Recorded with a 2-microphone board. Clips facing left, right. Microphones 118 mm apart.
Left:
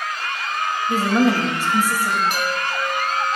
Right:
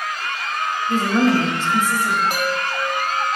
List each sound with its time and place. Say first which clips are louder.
0.9 s a woman speaking: right 1 dB; 10° left (ahead or behind), 1.0 m
2.3 s a chime: right 1 dB; 40° right (ahead or behind), 1.7 m